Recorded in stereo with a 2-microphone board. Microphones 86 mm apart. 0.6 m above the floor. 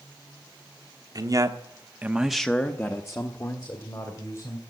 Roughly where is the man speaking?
Right.